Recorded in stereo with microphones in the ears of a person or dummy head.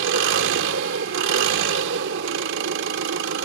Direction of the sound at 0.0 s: 65° right (ahead or behind).